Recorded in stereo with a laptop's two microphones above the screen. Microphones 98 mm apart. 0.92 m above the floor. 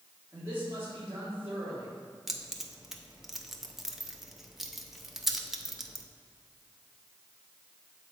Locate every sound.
0.3 s a man speaking: 20° right (ahead or behind), 2.0 m
2.3 s keys jangling: 5° right (ahead or behind), 0.6 m